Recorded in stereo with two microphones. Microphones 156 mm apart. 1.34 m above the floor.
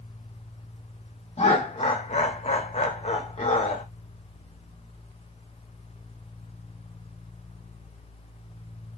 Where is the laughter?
45° left (ahead or behind), 0.8 m.